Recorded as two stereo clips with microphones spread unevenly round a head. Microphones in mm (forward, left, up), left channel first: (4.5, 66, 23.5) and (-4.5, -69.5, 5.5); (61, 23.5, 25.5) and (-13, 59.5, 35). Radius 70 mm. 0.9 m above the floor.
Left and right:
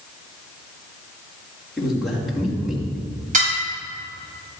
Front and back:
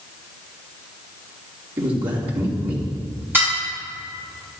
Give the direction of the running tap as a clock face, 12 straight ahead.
No running tap in this recording.